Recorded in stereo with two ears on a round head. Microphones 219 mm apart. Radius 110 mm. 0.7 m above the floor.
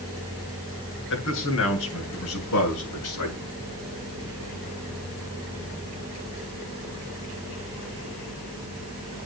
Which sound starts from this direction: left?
A man speaking, at 1.1 s.